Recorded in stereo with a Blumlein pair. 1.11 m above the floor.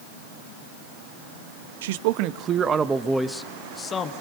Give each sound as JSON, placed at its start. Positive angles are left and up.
{"t": 1.8, "sound": "a man speaking", "azimuth_deg": -55, "distance_m": 1.2}